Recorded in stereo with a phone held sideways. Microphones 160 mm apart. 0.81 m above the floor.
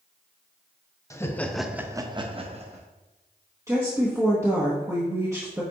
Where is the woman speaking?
20° right (ahead or behind), 1.2 m.